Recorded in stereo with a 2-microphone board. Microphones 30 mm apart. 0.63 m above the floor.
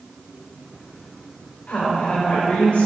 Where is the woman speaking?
60° left (ahead or behind), 2.5 m; by 2.9 s 50° left (ahead or behind), 3 m.